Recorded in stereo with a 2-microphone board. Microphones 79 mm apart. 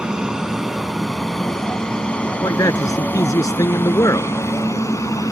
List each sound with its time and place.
0.0 s an aircraft: 10° right (ahead or behind); by 5.3 s 45° left (ahead or behind)
2.4 s a man speaking: 45° left (ahead or behind)